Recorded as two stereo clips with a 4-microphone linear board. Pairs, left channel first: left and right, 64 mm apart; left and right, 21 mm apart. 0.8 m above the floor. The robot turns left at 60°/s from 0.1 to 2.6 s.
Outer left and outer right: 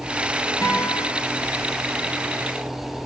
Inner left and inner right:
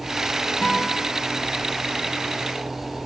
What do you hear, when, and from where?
0.6 s a guitar: 50° left (ahead or behind), 1.4 m; by 1.1 s 25° left (ahead or behind), 1.4 m